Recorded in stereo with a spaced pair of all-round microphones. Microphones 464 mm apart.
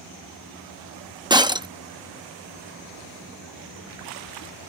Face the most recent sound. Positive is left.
turn(degrees=-10)  # may be behind; listen again after turning